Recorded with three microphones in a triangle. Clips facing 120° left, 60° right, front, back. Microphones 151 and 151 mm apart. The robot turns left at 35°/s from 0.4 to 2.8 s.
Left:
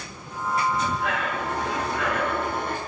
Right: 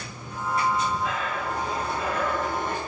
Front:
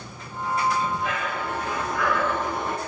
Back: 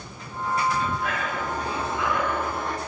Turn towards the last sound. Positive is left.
turn(degrees=85)